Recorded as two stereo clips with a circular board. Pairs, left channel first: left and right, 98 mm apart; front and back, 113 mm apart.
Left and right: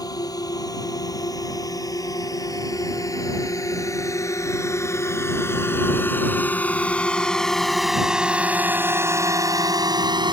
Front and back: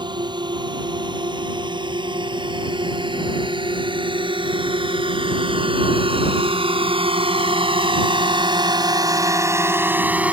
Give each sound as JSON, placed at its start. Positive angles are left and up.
{"t": 0.0, "sound": "a drone", "azimuth_deg": 135}